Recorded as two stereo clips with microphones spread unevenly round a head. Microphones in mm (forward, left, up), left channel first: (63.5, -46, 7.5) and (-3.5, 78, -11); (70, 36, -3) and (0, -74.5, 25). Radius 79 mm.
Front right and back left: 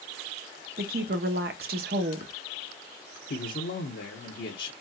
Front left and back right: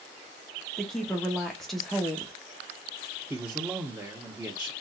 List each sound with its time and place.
0.8 s a woman speaking: 140° left, 0.9 m
3.3 s a man speaking: 45° right, 1.0 m